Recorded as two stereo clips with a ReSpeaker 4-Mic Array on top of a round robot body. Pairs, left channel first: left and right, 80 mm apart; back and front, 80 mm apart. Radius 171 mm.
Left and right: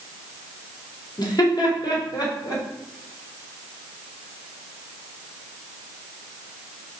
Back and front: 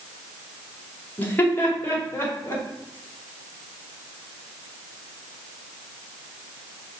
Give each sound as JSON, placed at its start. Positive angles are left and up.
{"t": 1.2, "sound": "laughter", "azimuth_deg": 115, "distance_m": 2.0}